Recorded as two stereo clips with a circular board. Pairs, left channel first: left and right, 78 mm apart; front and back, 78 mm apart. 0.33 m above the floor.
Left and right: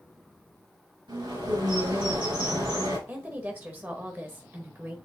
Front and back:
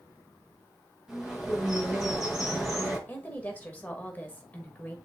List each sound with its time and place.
1.1 s a bird: 95° right, 4.5 m
3.1 s a woman speaking: 50° right, 1.4 m